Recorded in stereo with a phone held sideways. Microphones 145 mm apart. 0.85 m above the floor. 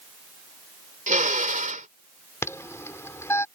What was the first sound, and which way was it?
A drill, 65° right (ahead or behind).